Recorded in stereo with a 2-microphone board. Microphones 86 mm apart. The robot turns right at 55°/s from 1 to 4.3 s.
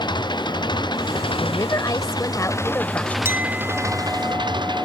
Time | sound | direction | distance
0.0 | an engine running | 60° left | ?
1.4 | a woman speaking | 60° left | ?
3.2 | a clink | 30° right | ?